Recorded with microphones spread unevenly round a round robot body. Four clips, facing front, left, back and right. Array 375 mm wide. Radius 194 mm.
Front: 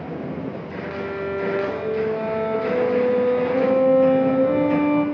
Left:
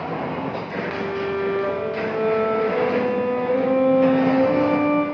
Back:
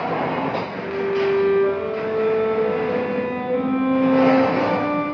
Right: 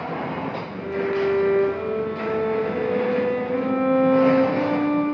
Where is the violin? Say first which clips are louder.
Right 4 dB, back 6 dB; straight ahead, 1.2 m.